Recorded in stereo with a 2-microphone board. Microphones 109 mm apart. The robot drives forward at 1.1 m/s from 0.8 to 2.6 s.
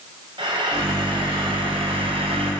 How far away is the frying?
About 6.5 m.